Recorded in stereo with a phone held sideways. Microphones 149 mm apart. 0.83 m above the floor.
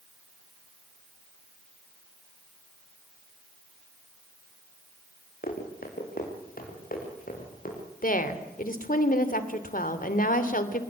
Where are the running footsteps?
75° left (ahead or behind), 6.5 m; by 7.8 s 70° left (ahead or behind), 8 m.